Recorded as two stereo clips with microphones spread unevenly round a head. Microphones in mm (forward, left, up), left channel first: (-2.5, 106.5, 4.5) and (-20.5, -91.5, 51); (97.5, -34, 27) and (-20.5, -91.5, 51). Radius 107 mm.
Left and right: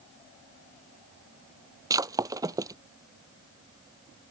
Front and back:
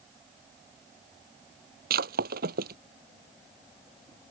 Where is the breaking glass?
165° right.